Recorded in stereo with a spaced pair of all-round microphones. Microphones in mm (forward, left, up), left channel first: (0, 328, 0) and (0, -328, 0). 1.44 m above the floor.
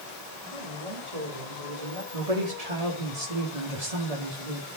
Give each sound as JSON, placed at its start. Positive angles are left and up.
{"t": 0.4, "sound": "a man speaking", "side_deg": -60, "distance_m": 4.0}
{"t": 2.1, "sound": "a woman speaking", "side_deg": -65, "distance_m": 4.0}